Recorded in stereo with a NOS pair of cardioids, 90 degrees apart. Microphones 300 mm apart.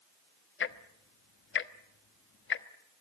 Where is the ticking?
40° left, 1.2 m.